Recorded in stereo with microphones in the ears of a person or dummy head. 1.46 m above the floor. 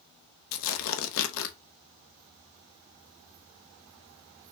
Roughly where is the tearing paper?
Left.